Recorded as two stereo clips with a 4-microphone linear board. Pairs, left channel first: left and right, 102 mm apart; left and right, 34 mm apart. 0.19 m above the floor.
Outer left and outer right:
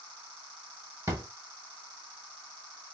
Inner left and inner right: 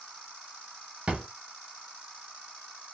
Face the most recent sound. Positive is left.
turn(degrees=-30)  # may be behind; listen again after turning